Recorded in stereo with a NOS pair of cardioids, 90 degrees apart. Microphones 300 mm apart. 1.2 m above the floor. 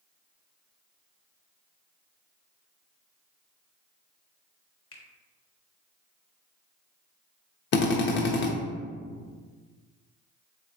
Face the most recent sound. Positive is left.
turn(degrees=40)